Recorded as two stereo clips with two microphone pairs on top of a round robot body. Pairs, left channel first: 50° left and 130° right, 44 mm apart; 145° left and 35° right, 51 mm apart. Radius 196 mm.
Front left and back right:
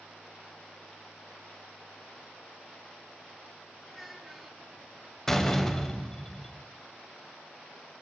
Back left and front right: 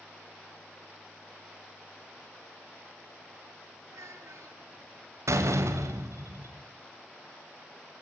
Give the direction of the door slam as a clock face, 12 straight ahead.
1 o'clock.